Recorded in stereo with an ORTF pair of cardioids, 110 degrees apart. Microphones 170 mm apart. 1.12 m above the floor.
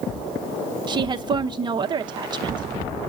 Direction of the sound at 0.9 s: 25° right.